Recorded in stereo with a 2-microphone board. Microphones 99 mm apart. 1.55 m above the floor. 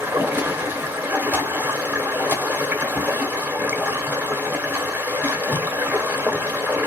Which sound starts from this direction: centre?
Running water, at 0.0 s.